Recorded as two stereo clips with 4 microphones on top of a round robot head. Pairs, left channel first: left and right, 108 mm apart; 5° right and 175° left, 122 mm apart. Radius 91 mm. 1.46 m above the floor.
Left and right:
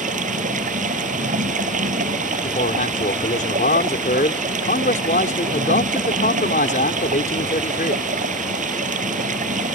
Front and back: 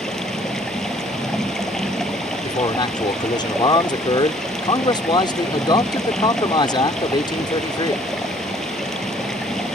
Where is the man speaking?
50° left.